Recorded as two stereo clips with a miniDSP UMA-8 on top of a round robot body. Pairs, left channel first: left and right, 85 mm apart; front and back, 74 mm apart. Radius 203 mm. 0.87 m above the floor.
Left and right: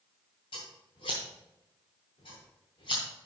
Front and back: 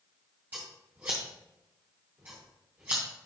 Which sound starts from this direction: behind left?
Scissors, at 0.5 s.